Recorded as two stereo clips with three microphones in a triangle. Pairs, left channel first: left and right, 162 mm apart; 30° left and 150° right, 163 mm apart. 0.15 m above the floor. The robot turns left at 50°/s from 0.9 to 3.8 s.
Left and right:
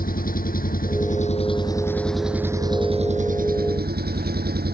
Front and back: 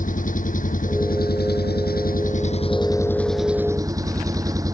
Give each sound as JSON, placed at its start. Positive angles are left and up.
{"t": 0.0, "sound": "an engine running", "azimuth_deg": 65}